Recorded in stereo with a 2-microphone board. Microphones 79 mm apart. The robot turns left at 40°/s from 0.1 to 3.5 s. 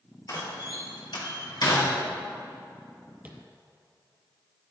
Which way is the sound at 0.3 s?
50° left (ahead or behind).